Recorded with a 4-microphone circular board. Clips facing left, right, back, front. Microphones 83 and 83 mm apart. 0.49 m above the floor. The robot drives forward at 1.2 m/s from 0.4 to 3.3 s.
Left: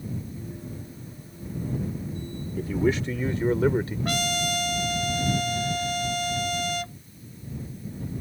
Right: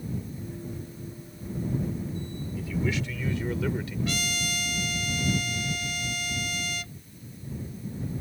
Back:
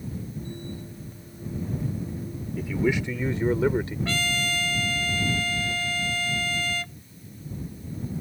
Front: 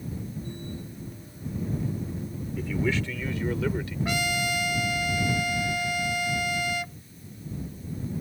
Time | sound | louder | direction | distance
2.6 | a man speaking | left 6 dB, back 3 dB | 90° left | ?
4.0 | a trumpet | left 5 dB, even | 70° left | ?